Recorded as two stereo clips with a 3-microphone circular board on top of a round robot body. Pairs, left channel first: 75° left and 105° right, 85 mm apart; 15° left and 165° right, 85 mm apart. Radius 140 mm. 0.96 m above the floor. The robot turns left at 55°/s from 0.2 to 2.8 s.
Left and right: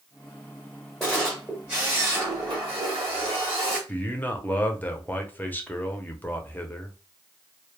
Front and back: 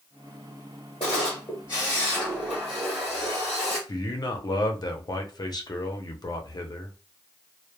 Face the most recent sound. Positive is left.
turn(degrees=10)